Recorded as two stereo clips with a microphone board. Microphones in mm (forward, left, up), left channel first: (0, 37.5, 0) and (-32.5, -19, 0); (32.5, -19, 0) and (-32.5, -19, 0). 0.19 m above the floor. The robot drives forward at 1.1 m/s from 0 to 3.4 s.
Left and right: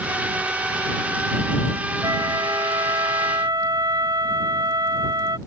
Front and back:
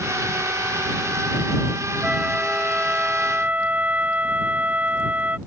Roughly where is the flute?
Right.